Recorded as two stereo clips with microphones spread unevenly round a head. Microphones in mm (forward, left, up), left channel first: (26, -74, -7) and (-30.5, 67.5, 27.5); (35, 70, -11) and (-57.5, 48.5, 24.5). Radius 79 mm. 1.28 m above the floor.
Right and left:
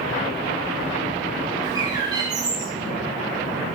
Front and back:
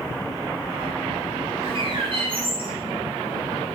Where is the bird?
175° left, 3.5 m.